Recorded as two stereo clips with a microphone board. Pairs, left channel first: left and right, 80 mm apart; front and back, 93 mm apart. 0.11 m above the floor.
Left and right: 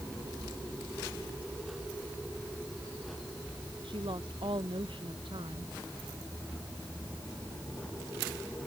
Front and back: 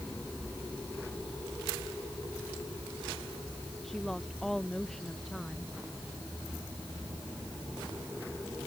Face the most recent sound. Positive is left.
turn(degrees=-85)